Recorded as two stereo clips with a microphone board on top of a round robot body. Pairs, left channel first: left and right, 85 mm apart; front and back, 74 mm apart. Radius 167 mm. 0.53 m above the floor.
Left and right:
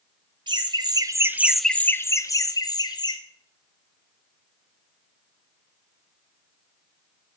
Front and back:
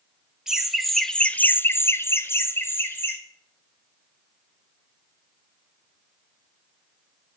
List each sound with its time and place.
0.5 s laughter: 95° right, 1.5 m; by 3.2 s 60° left, 2 m